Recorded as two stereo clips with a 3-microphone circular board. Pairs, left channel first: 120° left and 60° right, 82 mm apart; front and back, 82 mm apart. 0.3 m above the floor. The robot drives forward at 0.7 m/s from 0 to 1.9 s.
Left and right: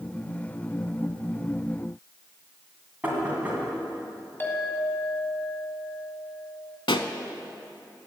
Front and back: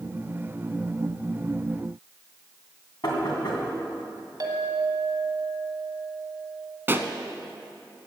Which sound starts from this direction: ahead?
Knocking, at 3.0 s.